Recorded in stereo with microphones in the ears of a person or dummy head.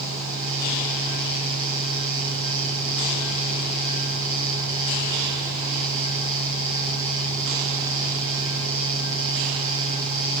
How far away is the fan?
About 1.4 m.